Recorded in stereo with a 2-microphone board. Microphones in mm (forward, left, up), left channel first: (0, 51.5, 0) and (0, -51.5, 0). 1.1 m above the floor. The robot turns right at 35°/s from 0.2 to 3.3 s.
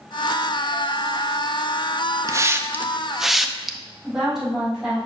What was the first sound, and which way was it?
A hiss, 30° right (ahead or behind).